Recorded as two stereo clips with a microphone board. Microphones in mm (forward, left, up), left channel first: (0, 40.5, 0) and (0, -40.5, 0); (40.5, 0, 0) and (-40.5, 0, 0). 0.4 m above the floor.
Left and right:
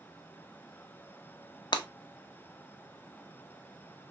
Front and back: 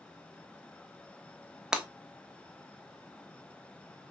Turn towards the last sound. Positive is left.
turn(degrees=100)